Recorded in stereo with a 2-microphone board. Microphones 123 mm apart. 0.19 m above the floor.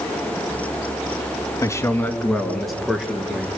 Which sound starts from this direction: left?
A man speaking, at 1.6 s.